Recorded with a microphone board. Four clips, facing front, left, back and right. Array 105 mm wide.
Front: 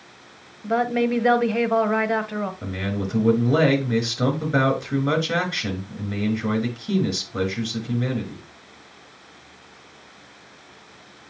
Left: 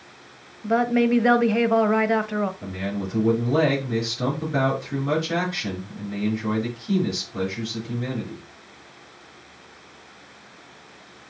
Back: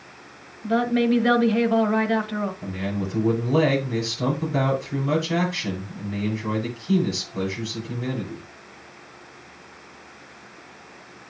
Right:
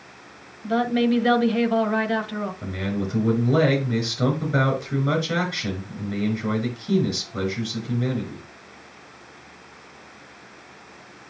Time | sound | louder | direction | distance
0.6 | a woman speaking | left 1 dB, back 1 dB | 60° left | 1.1 m
2.6 | a man speaking | right 1 dB, front 1 dB | 15° right | 4.5 m